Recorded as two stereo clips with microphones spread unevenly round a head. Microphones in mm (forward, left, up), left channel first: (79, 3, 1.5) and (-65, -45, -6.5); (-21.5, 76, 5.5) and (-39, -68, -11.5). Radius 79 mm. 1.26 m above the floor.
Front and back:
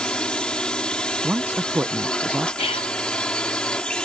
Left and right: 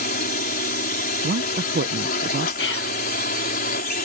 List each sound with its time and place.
0.0 s a drone: 105° left
1.2 s a man speaking: 80° right
2.6 s whispering: 75° left